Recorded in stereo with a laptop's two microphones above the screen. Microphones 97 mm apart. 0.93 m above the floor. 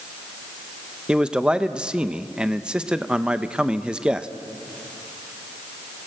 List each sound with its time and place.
1.1 s a man speaking: 10° right (ahead or behind), 0.6 m